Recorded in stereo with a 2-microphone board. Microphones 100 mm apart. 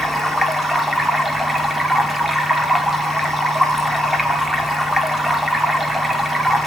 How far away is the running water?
About 1.0 m.